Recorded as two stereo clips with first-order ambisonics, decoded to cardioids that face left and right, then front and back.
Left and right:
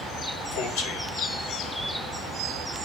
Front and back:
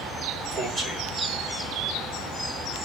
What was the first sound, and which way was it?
A man speaking, 110° left.